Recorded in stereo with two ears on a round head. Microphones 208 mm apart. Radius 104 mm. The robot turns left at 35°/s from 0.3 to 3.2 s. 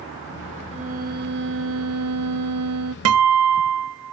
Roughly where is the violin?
Ahead right.